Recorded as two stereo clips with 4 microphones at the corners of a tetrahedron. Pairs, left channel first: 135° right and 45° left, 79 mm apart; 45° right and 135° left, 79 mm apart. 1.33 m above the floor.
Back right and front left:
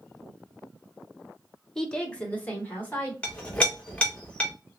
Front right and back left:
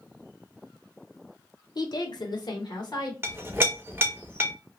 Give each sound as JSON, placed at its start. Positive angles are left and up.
{"t": 1.8, "sound": "a woman speaking", "azimuth_deg": -55, "distance_m": 0.7}
{"t": 3.2, "sound": "a clink", "azimuth_deg": 165, "distance_m": 0.7}